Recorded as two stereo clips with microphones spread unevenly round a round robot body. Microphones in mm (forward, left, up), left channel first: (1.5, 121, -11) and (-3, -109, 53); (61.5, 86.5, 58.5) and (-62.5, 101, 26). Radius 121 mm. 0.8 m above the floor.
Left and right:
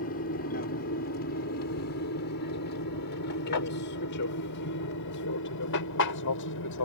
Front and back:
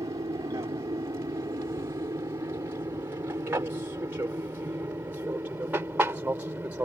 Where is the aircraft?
125° left; by 6.9 s 100° left.